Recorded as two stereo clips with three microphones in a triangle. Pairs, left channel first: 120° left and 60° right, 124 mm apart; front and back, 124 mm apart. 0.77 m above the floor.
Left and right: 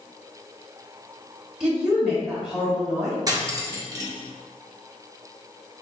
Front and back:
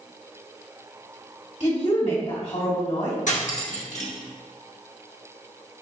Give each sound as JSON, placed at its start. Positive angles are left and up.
{"t": 1.6, "sound": "a woman speaking", "azimuth_deg": 25, "distance_m": 1.5}
{"t": 3.3, "sound": "cutlery clinking", "azimuth_deg": 0, "distance_m": 0.8}